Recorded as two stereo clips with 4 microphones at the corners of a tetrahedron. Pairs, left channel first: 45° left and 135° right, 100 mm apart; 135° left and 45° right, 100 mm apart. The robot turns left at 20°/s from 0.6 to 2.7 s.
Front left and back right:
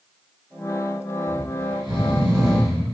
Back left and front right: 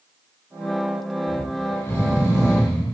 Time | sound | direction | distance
1.3 | snoring | 155° right | 2.0 m